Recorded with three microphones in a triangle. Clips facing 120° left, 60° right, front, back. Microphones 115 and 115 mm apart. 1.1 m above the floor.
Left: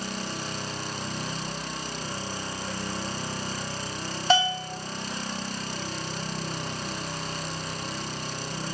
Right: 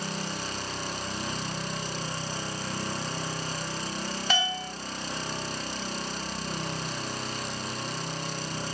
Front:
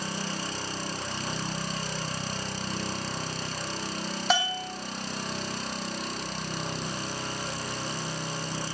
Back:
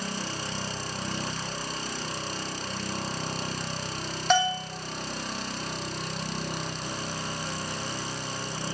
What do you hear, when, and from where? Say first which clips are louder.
4.3 s a bell: left 9 dB, back 4 dB; 85° left, 1.0 m